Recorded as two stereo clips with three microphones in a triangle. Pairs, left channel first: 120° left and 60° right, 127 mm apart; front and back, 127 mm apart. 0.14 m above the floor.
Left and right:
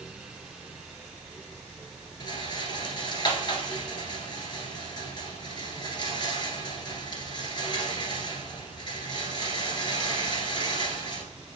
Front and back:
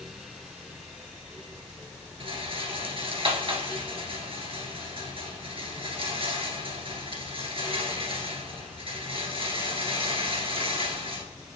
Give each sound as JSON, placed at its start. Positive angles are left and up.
{"t": 2.2, "sound": "a rattle", "azimuth_deg": 160, "distance_m": 1.7}